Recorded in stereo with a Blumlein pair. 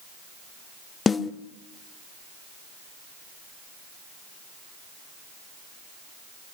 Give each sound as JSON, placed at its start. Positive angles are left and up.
{"t": 1.1, "sound": "a snare drum", "azimuth_deg": 15, "distance_m": 0.8}